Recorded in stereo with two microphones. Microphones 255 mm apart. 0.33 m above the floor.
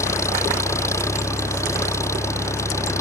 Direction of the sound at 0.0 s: 10° left (ahead or behind).